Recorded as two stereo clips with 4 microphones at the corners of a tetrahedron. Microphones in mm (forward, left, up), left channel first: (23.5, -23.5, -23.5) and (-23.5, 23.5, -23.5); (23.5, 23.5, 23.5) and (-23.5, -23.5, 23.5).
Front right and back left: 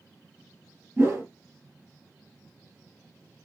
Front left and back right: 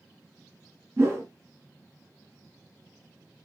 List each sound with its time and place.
1.0 s a whoosh: straight behind, 1.6 m